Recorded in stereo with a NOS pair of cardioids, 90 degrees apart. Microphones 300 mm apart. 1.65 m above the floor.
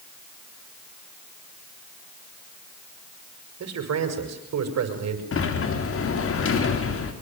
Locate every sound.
3.6 s a man speaking: 60° right, 7 m
5.3 s a sliding door: 45° left, 4 m